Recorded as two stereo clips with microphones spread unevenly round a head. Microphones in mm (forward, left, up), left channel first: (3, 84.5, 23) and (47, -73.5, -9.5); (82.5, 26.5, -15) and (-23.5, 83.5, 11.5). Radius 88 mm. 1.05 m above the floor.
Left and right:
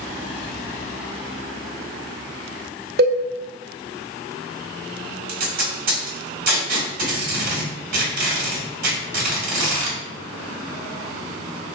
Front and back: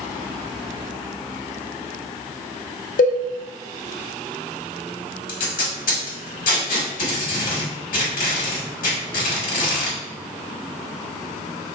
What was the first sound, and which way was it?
A cowbell, 45° right.